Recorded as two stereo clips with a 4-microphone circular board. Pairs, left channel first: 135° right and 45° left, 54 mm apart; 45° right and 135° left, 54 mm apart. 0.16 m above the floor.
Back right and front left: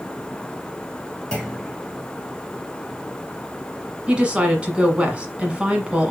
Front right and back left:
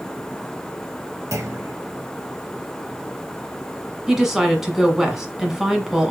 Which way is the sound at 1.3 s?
155° left.